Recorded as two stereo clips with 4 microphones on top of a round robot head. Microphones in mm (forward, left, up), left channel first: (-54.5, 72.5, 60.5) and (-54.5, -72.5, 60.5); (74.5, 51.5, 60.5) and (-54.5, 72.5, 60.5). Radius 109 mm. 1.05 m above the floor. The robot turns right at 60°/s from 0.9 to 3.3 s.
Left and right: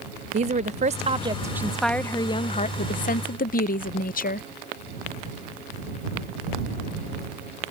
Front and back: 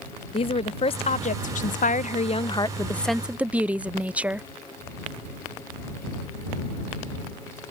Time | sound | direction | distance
0.3 | a woman speaking | 55° right | ?